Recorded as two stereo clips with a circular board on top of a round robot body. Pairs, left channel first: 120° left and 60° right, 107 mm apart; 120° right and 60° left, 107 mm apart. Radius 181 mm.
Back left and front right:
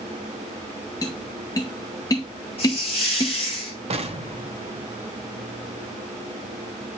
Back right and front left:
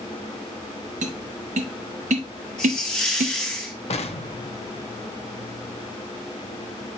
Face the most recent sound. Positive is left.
turn(degrees=-90)